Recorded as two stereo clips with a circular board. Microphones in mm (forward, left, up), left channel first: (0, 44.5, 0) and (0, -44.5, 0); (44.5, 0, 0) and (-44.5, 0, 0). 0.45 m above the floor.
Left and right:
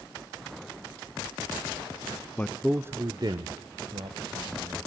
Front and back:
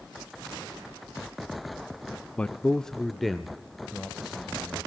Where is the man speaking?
60° left, 0.7 m; by 4.8 s 95° right, 2.5 m.